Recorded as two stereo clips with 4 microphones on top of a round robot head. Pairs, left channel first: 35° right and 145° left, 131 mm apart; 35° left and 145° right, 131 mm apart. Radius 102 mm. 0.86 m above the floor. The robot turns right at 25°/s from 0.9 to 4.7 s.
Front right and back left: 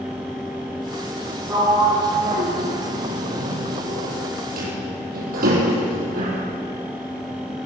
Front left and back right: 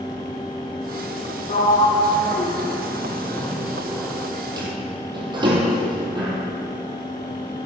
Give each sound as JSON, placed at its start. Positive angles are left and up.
{"t": 1.5, "sound": "a sliding door", "azimuth_deg": 75, "distance_m": 5.0}